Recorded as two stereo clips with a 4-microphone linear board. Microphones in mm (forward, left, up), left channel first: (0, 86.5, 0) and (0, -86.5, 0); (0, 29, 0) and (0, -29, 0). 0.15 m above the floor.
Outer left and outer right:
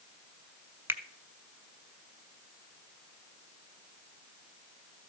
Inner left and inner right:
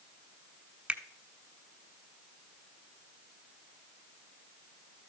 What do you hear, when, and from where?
0.9 s a finger snap: 15° right (ahead or behind), 1.0 m